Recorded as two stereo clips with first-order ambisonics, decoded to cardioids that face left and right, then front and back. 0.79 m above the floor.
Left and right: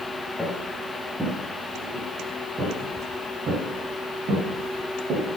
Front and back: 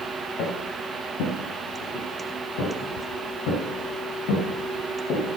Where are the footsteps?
Straight ahead, 4 m; by 5.3 s 40° right, 5.5 m.